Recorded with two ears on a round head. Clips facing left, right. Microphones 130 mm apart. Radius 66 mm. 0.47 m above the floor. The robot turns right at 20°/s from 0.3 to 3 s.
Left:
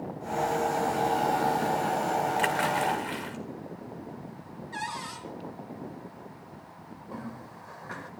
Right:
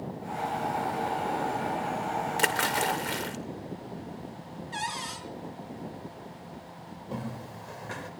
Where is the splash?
50° right (ahead or behind), 2 m.